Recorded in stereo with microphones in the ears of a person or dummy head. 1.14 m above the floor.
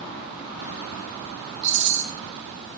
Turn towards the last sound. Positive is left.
turn(degrees=-65)  # may be behind; listen again after turning